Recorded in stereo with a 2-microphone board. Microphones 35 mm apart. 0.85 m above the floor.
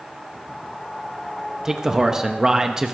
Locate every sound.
1.6 s a man speaking: 15° right (ahead or behind), 0.9 m